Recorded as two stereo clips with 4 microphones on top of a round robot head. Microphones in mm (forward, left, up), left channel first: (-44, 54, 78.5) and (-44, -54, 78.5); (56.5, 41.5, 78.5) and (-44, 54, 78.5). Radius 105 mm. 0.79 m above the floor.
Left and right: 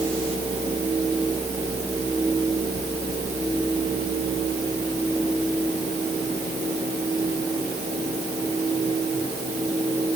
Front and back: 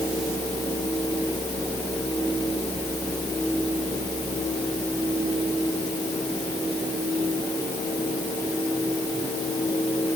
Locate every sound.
Only background noise.